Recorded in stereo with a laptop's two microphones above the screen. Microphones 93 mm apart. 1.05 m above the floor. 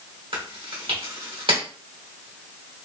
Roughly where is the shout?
No shout in this recording.